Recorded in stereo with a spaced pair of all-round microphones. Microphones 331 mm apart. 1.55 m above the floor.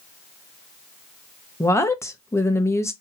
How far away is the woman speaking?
About 0.7 m.